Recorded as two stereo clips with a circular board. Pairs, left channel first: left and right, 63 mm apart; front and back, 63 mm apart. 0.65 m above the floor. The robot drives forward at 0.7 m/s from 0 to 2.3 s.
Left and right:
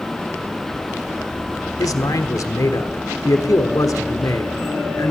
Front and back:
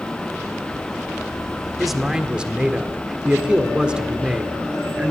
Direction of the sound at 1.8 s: 90° left.